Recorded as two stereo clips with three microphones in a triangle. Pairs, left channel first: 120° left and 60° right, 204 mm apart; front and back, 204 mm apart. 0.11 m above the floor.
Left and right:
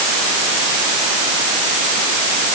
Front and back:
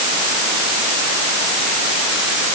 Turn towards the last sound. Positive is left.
No sound to turn to.